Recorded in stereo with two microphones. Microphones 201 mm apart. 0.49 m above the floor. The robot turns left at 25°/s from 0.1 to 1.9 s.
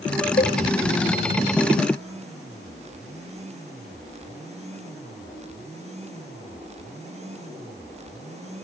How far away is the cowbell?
About 1.4 m.